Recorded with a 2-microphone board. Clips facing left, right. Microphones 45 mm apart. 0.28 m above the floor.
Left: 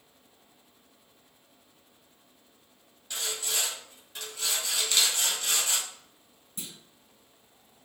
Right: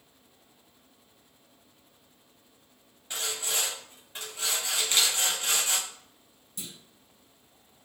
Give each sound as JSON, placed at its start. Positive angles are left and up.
{"t": 3.1, "sound": "sawing", "side_deg": -25, "distance_m": 1.5}
{"t": 4.8, "sound": "a camera shutter", "side_deg": -30, "distance_m": 1.1}
{"t": 6.6, "sound": "a clunk", "side_deg": 30, "distance_m": 1.6}